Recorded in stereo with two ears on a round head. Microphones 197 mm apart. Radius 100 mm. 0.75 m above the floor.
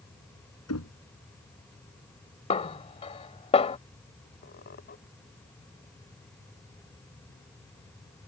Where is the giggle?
I don't hear a giggle.